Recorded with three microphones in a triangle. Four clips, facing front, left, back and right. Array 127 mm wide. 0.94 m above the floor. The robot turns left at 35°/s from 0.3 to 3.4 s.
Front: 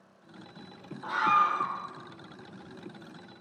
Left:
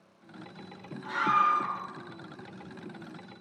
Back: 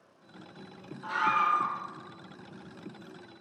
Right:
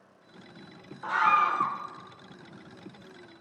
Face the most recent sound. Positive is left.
turn(degrees=-145)